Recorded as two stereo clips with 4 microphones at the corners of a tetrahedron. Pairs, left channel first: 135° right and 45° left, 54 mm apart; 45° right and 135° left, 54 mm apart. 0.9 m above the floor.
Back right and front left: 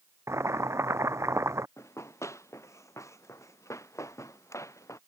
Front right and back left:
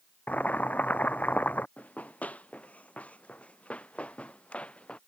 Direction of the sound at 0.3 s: 15° left.